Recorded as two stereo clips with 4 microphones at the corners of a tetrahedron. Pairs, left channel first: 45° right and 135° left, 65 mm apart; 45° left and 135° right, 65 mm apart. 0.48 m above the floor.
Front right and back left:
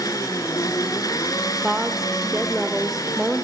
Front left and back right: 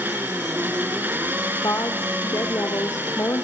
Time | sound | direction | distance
0.0 | an engine running | 75° right | 2 m
1.6 | a woman speaking | 50° left | 1.3 m